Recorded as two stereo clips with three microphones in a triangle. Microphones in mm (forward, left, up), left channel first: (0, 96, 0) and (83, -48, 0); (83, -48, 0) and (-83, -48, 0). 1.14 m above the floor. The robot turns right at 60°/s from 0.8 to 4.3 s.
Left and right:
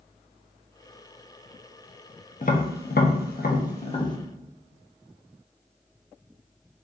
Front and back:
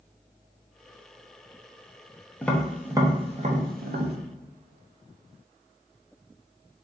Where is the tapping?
80° left, 0.5 m; by 4.2 s 175° right, 0.5 m.